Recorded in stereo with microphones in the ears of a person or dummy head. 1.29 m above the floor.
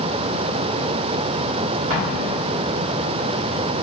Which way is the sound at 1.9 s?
60° right (ahead or behind).